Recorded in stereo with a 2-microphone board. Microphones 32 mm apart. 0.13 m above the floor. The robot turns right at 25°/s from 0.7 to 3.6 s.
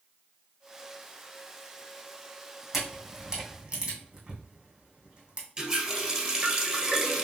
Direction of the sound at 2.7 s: 15° right (ahead or behind).